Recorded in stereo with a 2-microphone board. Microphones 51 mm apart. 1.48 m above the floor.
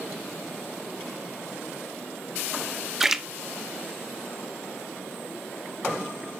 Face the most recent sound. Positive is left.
turn(degrees=-5)  # may be behind; listen again after turning